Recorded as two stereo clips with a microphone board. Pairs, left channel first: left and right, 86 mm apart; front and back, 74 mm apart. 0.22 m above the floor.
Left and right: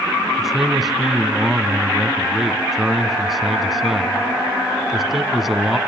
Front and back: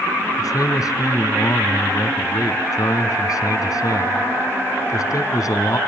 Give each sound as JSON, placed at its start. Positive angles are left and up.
{"t": 0.4, "sound": "a man speaking", "azimuth_deg": 0, "distance_m": 2.5}